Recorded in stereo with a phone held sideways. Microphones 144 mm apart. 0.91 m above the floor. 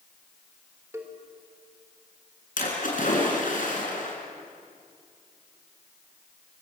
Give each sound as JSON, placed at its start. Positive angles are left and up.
{"t": 0.9, "sound": "a cowbell", "side_deg": -20, "distance_m": 3.0}
{"t": 2.6, "sound": "a splash", "side_deg": 65, "distance_m": 5.5}